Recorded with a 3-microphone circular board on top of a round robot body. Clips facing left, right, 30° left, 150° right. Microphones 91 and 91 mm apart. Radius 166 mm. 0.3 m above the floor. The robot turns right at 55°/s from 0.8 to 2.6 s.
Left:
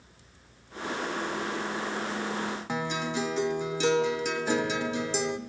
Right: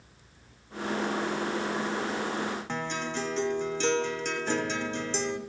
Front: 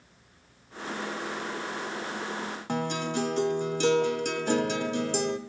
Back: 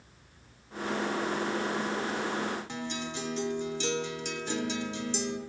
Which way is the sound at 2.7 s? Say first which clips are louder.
Left 2 dB, front 7 dB; 10° left.